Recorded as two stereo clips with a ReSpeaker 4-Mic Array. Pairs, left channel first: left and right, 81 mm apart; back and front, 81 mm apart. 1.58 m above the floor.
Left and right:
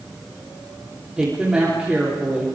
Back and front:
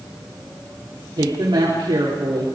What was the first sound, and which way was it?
A woman speaking, 10° right.